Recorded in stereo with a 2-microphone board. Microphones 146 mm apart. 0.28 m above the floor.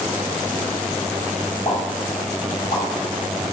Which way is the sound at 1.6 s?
45° left (ahead or behind).